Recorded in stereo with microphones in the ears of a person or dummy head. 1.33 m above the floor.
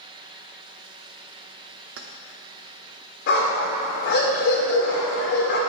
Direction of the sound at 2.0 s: 50° right (ahead or behind).